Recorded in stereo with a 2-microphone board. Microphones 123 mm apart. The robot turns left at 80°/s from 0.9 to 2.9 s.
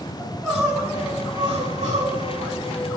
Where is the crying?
5° right, 6 m; by 3.0 s 165° right, 6 m.